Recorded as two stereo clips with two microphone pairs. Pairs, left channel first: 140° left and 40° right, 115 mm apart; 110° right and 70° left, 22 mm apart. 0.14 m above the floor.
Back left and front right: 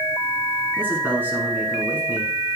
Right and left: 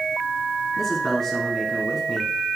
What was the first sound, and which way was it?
A man speaking, 75° right.